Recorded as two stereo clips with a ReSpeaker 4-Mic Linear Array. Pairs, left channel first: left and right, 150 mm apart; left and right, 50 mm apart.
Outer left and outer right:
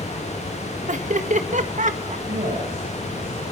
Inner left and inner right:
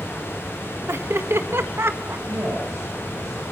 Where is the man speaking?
75° right (ahead or behind), 9.5 m.